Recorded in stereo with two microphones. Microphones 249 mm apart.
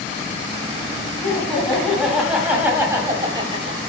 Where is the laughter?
5° left (ahead or behind), 3 m; by 3.8 s 25° right (ahead or behind), 1.8 m.